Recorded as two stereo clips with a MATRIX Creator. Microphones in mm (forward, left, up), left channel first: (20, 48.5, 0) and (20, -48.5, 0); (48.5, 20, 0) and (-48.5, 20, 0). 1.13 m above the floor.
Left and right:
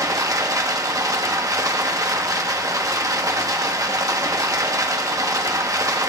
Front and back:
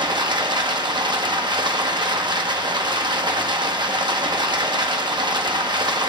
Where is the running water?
140° right, 1.0 m.